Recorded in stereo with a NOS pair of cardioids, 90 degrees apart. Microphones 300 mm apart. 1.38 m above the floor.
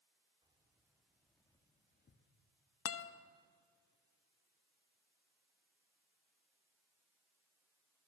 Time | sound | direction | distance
0.4 | keys jangling | 15° right | 3.5 m
2.9 | a guitar | 50° left | 1.2 m